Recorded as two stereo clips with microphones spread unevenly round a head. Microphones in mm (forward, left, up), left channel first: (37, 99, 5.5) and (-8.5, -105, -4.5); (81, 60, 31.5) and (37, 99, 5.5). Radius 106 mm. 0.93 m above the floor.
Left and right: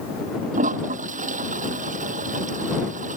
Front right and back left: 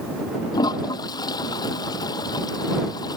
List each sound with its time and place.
0.5 s a toilet flushing: 45° right